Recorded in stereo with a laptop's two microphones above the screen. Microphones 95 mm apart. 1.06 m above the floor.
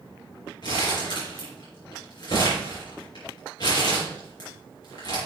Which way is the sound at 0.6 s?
55° left (ahead or behind).